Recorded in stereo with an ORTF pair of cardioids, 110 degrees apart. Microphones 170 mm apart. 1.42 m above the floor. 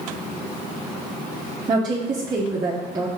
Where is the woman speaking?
20° right, 0.8 m.